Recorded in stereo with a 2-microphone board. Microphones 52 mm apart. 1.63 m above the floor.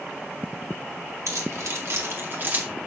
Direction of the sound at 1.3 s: 70° right (ahead or behind).